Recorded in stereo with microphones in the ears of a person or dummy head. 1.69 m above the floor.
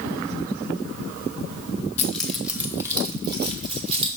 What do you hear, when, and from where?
2.0 s keys jangling: 10° left (ahead or behind), 1.0 m; by 4.1 s 35° right (ahead or behind), 2 m